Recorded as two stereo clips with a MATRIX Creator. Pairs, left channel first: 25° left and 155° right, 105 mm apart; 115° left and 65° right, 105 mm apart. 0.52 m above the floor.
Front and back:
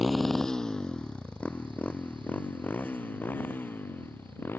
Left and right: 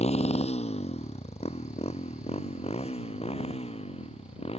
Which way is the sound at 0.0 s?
115° left.